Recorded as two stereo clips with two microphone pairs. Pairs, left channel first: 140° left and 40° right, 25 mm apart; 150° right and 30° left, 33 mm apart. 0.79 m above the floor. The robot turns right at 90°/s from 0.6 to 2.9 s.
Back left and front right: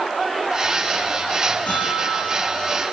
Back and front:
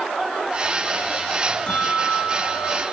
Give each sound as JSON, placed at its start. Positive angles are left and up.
{"t": 1.7, "sound": "a bell", "azimuth_deg": 150, "distance_m": 7.5}